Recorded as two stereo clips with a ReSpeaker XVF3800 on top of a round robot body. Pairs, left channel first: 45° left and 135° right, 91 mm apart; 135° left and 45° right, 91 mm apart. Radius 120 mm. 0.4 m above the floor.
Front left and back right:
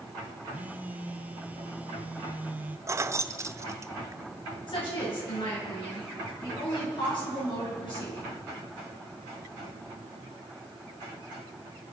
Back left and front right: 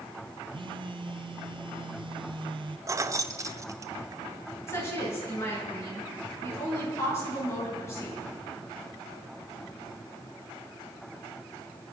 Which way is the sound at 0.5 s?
65° right.